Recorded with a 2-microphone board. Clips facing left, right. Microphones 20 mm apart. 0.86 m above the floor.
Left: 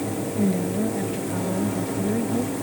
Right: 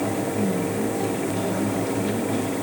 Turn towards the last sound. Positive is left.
turn(degrees=85)